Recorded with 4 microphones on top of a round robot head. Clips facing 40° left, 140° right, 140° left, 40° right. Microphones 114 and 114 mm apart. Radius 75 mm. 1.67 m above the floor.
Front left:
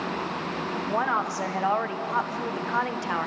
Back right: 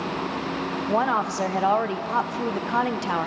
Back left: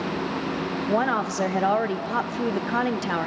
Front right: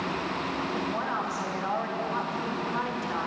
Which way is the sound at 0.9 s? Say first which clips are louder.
Back right 4 dB, back left 7 dB; 150° left.